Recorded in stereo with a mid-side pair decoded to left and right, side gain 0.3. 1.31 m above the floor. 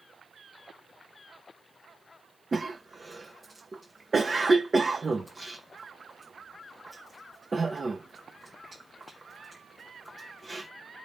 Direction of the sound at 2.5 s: 35° right.